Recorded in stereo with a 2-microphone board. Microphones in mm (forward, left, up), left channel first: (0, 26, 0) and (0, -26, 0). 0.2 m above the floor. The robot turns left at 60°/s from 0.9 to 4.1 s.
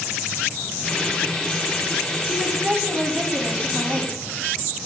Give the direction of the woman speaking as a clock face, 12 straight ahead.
12 o'clock.